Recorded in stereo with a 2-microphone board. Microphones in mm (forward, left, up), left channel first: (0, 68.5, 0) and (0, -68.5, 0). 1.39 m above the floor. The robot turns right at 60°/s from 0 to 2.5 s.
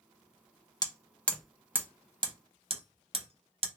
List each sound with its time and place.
0.8 s hammering: 30° left (ahead or behind), 0.6 m; by 3.7 s 45° right (ahead or behind), 0.6 m